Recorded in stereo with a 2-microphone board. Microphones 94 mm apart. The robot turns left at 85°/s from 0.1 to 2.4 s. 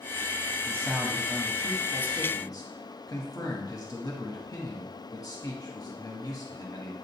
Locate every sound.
0.7 s a man speaking: 135° right, 1.4 m; by 7.0 s 75° left, 1.4 m